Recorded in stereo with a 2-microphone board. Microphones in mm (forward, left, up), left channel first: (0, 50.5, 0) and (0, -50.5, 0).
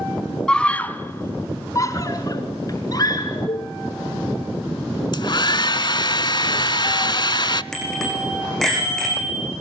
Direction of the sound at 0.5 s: 10° left (ahead or behind).